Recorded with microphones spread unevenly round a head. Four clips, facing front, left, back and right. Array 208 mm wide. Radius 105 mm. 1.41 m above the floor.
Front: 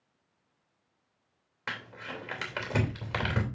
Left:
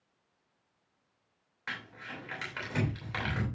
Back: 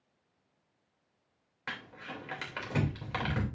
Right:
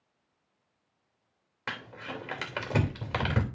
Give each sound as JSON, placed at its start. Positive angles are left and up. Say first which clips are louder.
{"t": 1.7, "sound": "crumpling", "louder": "right 4 dB, front 3 dB", "azimuth_deg": -50, "distance_m": 3.0}